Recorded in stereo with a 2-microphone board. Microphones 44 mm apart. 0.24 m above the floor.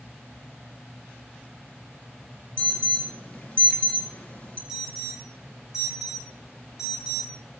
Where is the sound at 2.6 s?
30° left (ahead or behind), 2.5 m.